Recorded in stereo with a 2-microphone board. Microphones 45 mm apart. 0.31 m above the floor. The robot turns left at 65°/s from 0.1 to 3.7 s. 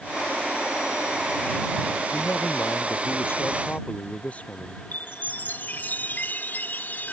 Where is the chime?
45° left (ahead or behind).